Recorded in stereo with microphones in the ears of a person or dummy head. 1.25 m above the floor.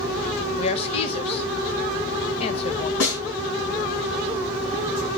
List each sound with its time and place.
0.6 s a woman speaking: 35° left (ahead or behind), 1.4 m
3.0 s a snare drum: 70° left (ahead or behind), 6.5 m